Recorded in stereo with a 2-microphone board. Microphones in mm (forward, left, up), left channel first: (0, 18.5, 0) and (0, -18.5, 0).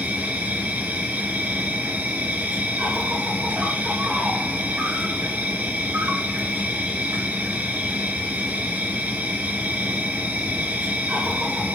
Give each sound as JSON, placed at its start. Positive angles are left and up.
{"t": 0.0, "sound": "an insect", "side_deg": -70, "distance_m": 1.8}